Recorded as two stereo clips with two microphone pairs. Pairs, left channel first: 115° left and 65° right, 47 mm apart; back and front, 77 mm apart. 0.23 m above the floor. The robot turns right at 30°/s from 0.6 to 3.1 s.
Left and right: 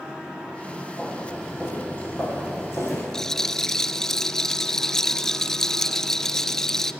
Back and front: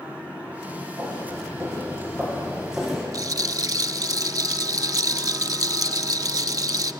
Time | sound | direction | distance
1.0 | footsteps | 35° left | 7.5 m
3.1 | a rattle | 35° left | 0.5 m